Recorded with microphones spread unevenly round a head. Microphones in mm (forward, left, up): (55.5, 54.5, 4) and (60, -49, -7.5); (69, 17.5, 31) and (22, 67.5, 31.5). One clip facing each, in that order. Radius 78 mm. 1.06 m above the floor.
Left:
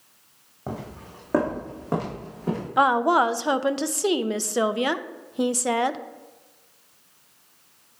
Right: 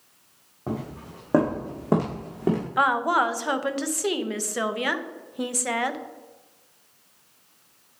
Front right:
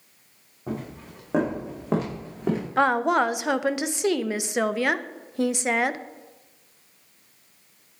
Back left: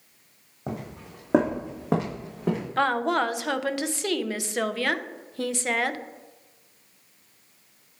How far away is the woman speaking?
About 0.6 m.